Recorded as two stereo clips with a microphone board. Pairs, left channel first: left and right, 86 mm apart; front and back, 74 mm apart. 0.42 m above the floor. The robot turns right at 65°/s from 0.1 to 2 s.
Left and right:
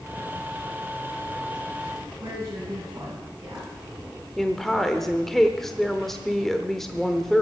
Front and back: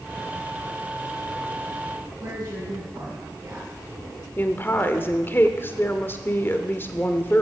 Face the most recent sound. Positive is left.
turn(degrees=5)